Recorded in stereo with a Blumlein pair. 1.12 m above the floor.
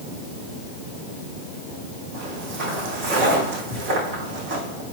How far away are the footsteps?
About 3.5 m.